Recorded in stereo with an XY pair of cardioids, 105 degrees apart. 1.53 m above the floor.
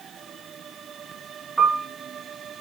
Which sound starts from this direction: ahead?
A piano, at 1.6 s.